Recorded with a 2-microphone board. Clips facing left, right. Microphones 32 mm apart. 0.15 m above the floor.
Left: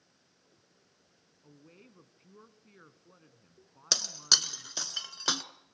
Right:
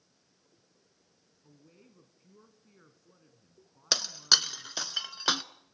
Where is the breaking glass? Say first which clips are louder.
Right 2 dB; 20° right (ahead or behind), 0.8 m.